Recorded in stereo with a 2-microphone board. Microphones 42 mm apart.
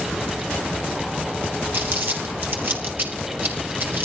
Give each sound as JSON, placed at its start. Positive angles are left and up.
{"t": 1.7, "sound": "crumpling", "side_deg": -60, "distance_m": 3.0}